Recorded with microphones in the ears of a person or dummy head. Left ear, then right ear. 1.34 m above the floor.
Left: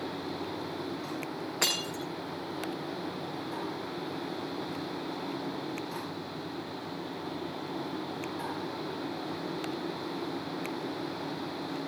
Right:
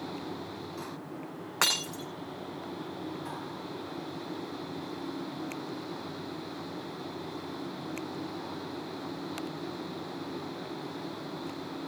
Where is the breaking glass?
50° right (ahead or behind), 6.5 m.